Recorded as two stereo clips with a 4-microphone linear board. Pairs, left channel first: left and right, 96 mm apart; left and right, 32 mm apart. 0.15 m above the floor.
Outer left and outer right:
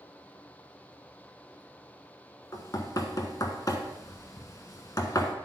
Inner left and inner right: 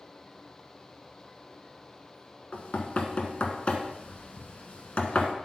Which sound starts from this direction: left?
Knocking, at 2.5 s.